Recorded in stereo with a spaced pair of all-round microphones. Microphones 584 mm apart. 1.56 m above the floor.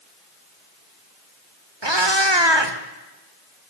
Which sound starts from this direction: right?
A cat meowing, at 1.8 s.